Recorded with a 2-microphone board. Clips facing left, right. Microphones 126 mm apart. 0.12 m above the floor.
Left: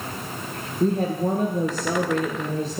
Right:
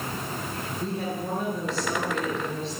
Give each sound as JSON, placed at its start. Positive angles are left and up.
{"t": 0.8, "sound": "a woman speaking", "side_deg": 45, "distance_m": 2.0}